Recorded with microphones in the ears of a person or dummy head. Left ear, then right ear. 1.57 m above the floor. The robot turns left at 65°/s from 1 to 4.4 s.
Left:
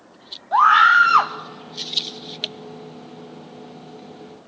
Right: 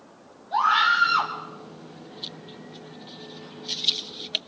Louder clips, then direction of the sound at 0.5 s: Left 8 dB; 35° left (ahead or behind).